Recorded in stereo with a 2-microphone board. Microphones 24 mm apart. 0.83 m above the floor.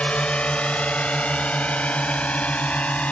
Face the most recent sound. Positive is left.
turn(degrees=75)  # may be behind; listen again after turning